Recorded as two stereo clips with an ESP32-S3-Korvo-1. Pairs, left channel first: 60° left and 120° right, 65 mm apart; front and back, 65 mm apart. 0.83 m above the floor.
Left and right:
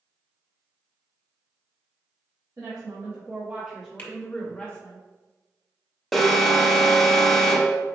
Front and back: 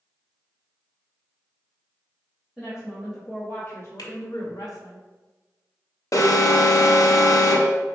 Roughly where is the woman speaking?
Right.